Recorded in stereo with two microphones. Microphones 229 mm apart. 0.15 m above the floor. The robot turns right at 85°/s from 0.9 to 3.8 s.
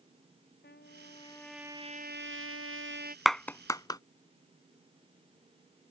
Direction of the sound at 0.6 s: 125° left.